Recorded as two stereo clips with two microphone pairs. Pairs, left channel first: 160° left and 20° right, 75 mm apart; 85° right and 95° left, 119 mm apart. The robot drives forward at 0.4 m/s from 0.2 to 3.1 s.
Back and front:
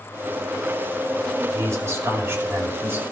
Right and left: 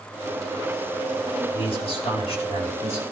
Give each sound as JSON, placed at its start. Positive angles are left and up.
{"t": 1.5, "sound": "a man speaking", "azimuth_deg": -65, "distance_m": 3.0}